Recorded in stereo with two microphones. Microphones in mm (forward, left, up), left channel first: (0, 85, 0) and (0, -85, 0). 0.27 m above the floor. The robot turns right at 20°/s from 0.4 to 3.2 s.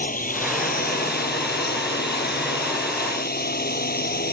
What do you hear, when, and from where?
0.0 s a drone: 55° left; by 4.3 s 110° left